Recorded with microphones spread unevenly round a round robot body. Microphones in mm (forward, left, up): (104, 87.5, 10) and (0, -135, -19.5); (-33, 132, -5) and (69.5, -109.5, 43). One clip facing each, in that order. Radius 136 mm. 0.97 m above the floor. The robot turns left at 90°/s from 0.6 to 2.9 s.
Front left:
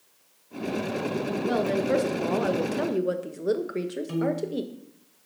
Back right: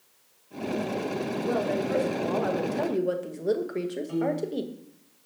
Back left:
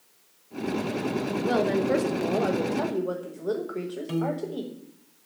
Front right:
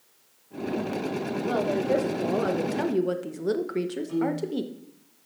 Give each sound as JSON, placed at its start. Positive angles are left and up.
{"t": 1.4, "sound": "a woman speaking", "azimuth_deg": 115, "distance_m": 1.1}
{"t": 4.1, "sound": "a piano", "azimuth_deg": 105, "distance_m": 1.3}